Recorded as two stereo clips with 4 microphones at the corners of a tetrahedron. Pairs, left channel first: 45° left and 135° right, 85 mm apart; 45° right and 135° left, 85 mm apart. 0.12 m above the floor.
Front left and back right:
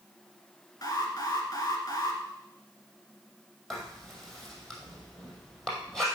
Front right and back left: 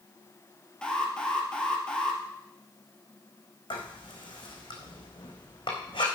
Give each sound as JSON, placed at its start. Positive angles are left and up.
{"t": 0.8, "sound": "an alarm", "azimuth_deg": 30, "distance_m": 2.0}
{"t": 3.7, "sound": "writing", "azimuth_deg": -40, "distance_m": 3.0}